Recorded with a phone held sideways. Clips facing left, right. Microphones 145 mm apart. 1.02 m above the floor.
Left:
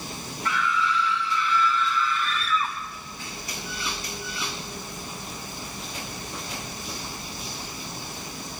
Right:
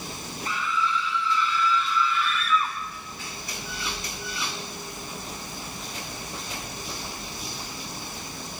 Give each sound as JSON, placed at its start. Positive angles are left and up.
{"t": 0.5, "sound": "a scream", "side_deg": 80, "distance_m": 4.0}